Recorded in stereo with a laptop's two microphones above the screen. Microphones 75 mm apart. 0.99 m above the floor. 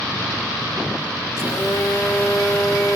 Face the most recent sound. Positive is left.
turn(degrees=45)  # may be behind; listen again after turning